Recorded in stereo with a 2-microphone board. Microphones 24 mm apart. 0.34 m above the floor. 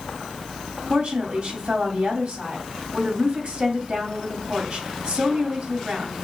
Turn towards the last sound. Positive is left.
turn(degrees=-60)  # may be behind; listen again after turning